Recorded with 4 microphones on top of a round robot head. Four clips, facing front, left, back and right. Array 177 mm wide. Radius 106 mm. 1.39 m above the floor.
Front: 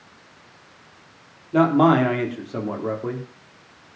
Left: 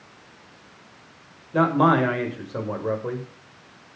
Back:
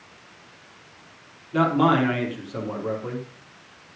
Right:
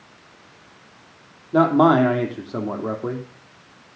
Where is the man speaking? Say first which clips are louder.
Right 4 dB, front 3 dB; 60° right, 3.5 m.